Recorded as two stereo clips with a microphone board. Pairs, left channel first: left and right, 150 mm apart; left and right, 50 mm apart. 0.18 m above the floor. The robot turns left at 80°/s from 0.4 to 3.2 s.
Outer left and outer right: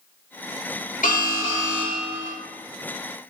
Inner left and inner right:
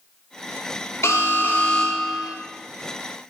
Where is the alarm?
75° left, 4.5 m; by 2.4 s 30° right, 4.5 m.